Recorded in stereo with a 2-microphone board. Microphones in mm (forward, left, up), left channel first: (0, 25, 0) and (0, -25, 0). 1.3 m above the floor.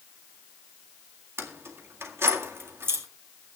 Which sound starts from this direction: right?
Keys jangling, at 1.4 s.